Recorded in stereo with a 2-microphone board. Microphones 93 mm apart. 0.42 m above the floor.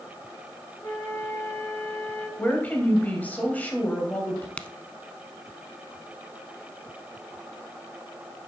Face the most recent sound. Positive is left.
turn(degrees=15)  # may be behind; listen again after turning